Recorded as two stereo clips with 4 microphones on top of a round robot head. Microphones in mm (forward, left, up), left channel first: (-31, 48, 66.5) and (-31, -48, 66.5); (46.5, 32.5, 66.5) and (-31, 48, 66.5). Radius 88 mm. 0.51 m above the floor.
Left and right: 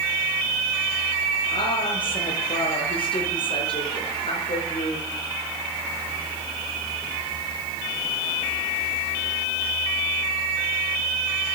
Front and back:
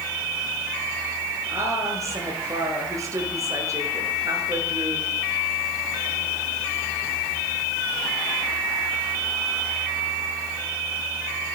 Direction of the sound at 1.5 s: 120° left.